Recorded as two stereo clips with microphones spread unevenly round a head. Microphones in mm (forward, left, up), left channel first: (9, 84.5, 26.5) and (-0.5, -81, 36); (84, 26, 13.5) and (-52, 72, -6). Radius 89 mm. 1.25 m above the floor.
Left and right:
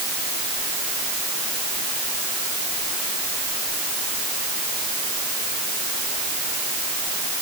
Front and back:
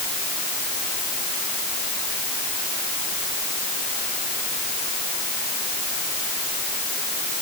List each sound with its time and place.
Only background noise.